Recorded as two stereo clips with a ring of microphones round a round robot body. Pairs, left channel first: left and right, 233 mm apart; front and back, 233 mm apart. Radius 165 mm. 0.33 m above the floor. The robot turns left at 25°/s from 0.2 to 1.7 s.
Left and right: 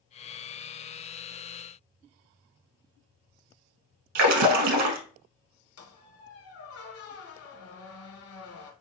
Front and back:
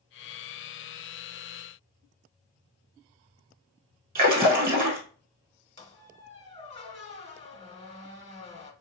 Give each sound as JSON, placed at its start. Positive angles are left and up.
{"t": 4.2, "sound": "a splash", "azimuth_deg": -115, "distance_m": 0.5}
{"t": 5.8, "sound": "a squeak", "azimuth_deg": 65, "distance_m": 1.0}